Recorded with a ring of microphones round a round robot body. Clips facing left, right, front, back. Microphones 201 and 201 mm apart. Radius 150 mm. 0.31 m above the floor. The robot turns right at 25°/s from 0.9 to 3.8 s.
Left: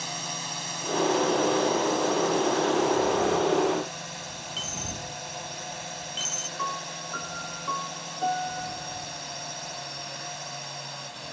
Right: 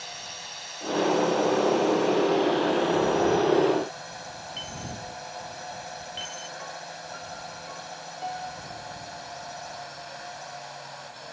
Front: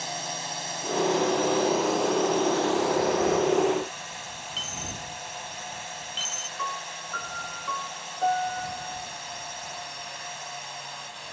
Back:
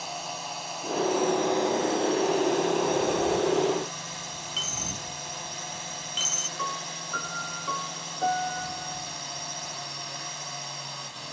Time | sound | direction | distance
0.0 | a drone | 80° left | ?
4.6 | a dropped coin | 150° left | ?
6.6 | a piano | 135° left | ?